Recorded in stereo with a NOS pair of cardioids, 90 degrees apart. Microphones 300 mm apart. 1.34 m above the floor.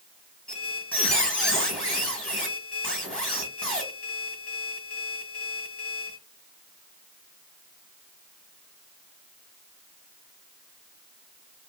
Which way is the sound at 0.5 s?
5° left.